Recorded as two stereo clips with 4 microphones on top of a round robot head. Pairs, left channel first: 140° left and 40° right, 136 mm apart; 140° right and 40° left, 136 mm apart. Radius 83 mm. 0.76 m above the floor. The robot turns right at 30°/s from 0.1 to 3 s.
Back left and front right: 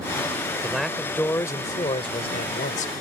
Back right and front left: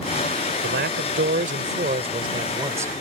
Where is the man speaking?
45° left; by 2.9 s 115° left.